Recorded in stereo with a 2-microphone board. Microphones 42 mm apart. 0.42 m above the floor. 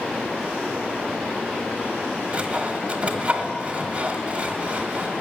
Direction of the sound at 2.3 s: 30° right (ahead or behind).